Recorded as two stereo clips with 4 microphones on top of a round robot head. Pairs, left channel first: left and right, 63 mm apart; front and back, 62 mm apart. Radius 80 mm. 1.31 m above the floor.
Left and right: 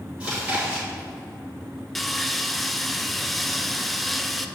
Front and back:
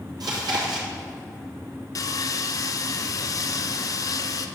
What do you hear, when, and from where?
0.2 s chewing: 165° right, 3 m
1.9 s sawing: straight ahead, 0.7 m